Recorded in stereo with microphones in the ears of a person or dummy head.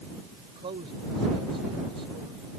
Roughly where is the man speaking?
Right.